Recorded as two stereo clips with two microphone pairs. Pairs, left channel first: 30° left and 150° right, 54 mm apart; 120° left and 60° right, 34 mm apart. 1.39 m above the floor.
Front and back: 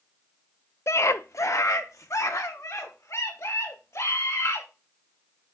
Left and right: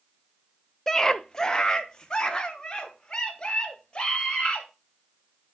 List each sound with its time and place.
0.9 s a scream: 45° left, 0.5 m; by 4.7 s 50° left, 3 m